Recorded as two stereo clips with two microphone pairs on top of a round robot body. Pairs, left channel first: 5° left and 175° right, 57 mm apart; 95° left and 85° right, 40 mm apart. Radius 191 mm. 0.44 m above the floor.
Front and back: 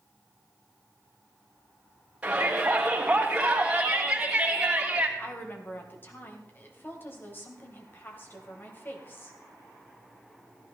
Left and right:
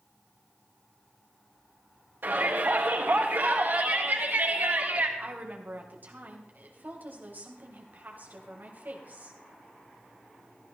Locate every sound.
2.2 s a shout: 100° right, 3.5 m
5.2 s a woman speaking: 45° right, 3 m